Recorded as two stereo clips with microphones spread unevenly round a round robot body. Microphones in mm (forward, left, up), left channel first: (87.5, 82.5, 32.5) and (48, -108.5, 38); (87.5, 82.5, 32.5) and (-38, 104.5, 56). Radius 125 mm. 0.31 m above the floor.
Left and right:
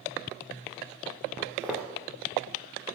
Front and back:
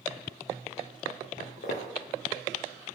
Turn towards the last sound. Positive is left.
turn(degrees=-20)